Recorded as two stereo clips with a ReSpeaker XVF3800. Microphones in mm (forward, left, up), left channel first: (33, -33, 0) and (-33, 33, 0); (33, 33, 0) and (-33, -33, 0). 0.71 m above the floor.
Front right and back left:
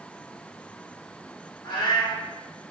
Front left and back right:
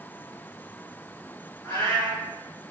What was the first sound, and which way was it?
A cat meowing, 15° right.